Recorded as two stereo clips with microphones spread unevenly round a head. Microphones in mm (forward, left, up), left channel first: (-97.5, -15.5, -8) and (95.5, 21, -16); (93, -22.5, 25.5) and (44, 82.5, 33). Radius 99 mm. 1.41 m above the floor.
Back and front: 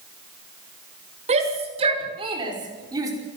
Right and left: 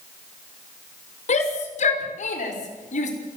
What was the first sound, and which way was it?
A shout, 50° right.